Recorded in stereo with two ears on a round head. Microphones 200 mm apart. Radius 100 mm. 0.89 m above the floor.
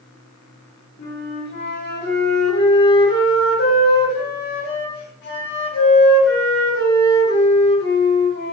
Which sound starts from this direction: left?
A flute, at 1.0 s.